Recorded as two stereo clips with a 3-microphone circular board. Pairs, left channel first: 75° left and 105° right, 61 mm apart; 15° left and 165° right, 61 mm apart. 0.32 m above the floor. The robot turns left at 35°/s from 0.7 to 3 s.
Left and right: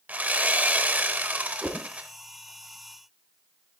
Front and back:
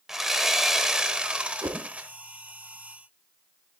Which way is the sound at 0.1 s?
90° right.